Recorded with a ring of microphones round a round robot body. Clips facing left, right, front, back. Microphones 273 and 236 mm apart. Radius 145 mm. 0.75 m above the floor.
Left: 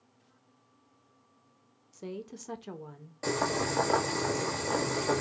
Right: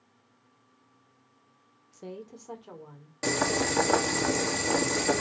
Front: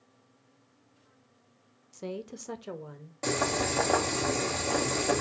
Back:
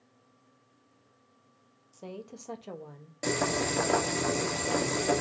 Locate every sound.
1.9 s a woman speaking: 10° left, 0.6 m; by 3.1 s 85° left, 0.9 m
3.2 s boiling: 105° right, 1.2 m